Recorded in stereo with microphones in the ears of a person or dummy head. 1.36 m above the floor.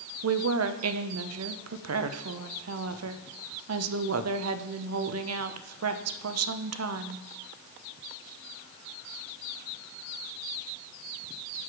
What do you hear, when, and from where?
0.2 s a woman speaking: 80° right, 0.8 m